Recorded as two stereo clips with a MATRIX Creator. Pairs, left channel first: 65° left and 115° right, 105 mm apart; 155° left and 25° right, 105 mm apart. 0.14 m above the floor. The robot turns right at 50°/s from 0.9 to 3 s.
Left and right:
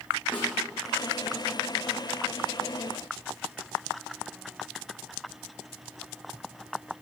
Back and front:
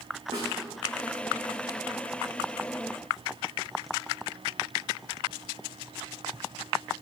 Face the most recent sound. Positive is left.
turn(degrees=100)